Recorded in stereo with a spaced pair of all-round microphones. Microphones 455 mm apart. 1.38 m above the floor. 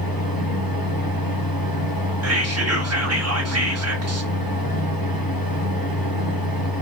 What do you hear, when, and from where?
0.0 s a fan: 50° left (ahead or behind), 0.8 m
2.2 s whispering: 30° right (ahead or behind), 1.3 m